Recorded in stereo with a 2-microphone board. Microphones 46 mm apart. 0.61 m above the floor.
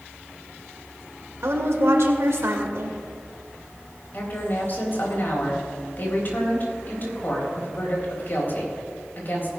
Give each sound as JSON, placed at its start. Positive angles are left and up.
{"t": 1.4, "sound": "a woman speaking", "side_deg": -70, "distance_m": 1.8}
{"t": 4.1, "sound": "a woman speaking", "side_deg": 50, "distance_m": 4.0}